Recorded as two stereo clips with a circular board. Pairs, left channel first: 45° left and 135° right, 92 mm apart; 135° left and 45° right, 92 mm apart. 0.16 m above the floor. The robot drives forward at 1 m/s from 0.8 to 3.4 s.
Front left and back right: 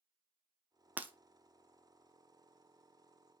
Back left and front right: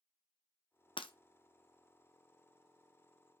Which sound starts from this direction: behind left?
Breaking glass, at 1.0 s.